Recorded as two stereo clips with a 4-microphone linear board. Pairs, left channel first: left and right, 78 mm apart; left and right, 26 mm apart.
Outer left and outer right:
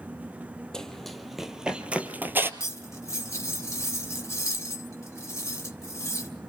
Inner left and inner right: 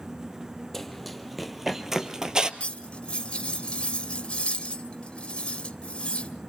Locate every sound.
0.7 s running footsteps: 10° left (ahead or behind), 1.7 m; by 2.5 s 30° right (ahead or behind), 1.4 m
2.6 s cutlery clinking: 40° left (ahead or behind), 2.5 m